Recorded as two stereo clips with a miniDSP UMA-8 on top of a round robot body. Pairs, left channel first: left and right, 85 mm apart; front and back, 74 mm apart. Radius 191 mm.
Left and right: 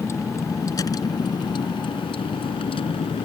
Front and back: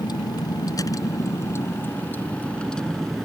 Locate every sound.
0.0 s a vehicle: 30° left; by 3.2 s 90° left